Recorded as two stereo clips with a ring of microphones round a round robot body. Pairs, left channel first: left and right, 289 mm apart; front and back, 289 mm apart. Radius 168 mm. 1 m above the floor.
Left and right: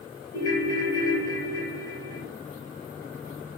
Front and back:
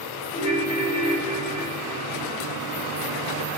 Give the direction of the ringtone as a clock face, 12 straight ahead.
10 o'clock.